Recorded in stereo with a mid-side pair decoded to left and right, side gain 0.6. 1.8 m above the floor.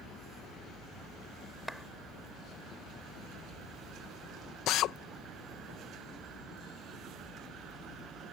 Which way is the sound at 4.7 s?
65° left.